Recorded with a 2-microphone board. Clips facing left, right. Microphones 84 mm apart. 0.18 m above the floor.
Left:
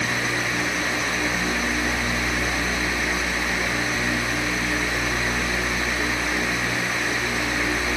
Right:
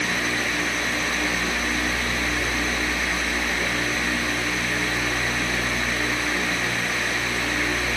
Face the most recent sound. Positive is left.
No sound to turn to.